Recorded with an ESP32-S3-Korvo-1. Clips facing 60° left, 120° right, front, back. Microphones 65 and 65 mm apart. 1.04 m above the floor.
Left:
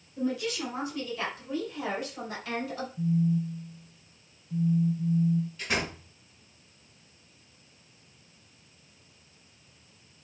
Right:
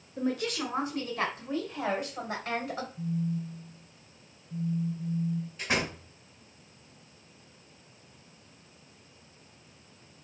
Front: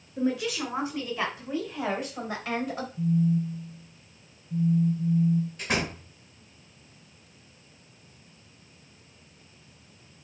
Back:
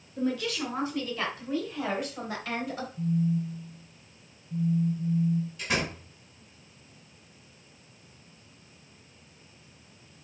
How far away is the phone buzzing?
About 1.0 m.